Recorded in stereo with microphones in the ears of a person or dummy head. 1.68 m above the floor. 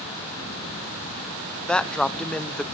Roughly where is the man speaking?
Centre.